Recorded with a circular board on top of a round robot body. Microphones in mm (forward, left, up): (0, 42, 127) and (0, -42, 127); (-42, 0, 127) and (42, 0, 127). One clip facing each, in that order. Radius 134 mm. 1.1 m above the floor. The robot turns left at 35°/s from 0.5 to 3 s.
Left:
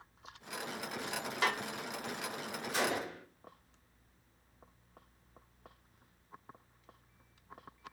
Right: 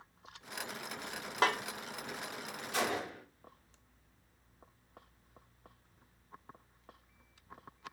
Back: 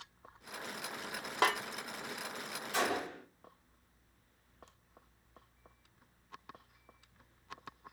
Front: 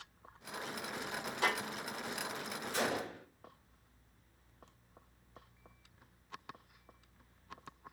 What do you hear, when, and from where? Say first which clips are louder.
1.4 s a snare drum: right 3 dB, back 4 dB; 145° right, 0.6 m; by 1.6 s 150° right, 0.6 m
2.7 s a gunshot: even, back 2 dB; 145° right, 2 m; by 3.2 s 150° right, 2 m